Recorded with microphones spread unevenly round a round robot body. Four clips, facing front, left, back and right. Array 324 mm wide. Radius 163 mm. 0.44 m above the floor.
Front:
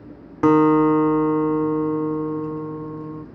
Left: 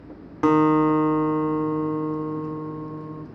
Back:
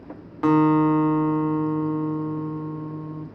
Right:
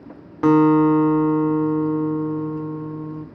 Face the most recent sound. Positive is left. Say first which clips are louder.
# right 4 dB, front 3 dB
turn(degrees=-5)